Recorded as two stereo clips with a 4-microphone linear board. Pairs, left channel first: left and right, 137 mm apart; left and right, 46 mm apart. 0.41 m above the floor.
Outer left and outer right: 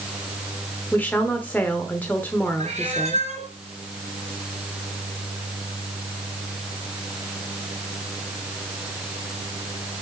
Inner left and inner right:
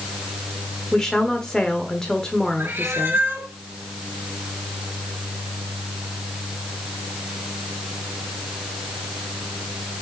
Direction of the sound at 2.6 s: 60° right (ahead or behind).